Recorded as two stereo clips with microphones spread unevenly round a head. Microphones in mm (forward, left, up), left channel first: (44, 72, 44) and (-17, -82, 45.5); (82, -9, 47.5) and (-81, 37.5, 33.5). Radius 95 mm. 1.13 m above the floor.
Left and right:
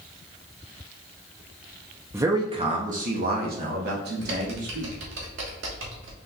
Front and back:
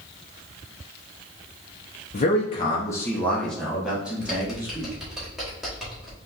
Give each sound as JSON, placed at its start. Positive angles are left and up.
{"t": 2.1, "sound": "a man speaking", "azimuth_deg": -40, "distance_m": 0.6}
{"t": 4.2, "sound": "typing on a keyboard", "azimuth_deg": -105, "distance_m": 1.0}